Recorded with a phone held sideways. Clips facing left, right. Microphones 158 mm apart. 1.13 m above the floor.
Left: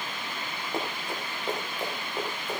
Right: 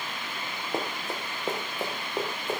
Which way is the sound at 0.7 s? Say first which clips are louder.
Right 1 dB; 20° right (ahead or behind).